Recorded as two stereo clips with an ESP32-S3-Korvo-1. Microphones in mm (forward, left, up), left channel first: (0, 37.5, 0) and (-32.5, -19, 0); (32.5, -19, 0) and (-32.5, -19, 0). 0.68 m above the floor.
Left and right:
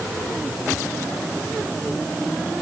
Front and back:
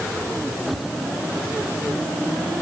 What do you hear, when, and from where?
Only background noise.